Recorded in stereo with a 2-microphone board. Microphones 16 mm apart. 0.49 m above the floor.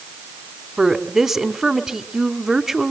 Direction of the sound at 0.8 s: 25° right (ahead or behind).